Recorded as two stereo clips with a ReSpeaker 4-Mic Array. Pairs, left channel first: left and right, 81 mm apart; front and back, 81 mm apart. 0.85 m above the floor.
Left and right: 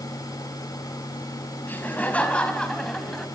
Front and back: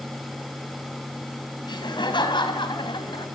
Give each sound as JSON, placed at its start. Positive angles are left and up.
{"t": 1.7, "sound": "laughter", "azimuth_deg": 20, "distance_m": 5.0}